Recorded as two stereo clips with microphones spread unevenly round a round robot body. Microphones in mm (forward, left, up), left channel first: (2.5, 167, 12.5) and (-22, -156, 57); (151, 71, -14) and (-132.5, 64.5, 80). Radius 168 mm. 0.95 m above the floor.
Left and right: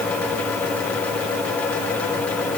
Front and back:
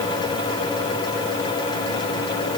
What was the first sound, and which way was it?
Only background noise.